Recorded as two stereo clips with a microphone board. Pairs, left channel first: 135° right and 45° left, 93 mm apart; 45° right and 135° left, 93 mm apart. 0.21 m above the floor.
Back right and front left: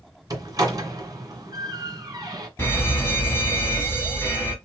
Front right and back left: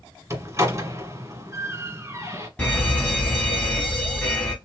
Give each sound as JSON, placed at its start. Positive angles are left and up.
{"t": 0.3, "sound": "a door slam", "azimuth_deg": 85, "distance_m": 2.0}
{"t": 2.6, "sound": "a fire alarm", "azimuth_deg": -100, "distance_m": 2.0}